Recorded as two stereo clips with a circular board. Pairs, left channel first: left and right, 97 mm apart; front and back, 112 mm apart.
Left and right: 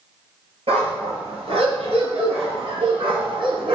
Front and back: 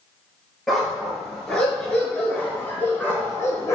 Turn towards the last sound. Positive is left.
turn(degrees=-60)